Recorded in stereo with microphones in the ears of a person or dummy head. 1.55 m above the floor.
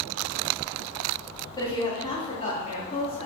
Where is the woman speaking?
25° left (ahead or behind), 2.5 m; by 3.3 s 45° left (ahead or behind), 3 m.